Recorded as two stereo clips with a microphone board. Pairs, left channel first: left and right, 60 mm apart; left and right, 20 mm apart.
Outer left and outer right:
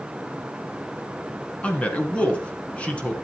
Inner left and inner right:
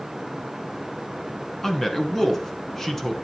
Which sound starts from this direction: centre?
A man speaking, at 1.6 s.